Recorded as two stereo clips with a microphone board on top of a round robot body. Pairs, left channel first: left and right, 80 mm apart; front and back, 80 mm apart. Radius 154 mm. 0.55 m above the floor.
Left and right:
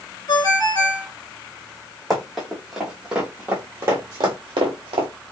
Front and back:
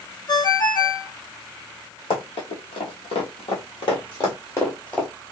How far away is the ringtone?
About 2 m.